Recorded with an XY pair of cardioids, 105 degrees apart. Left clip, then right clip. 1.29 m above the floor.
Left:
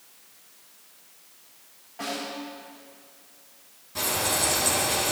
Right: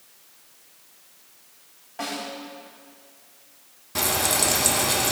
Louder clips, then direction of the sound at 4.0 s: Right 3 dB; 65° right.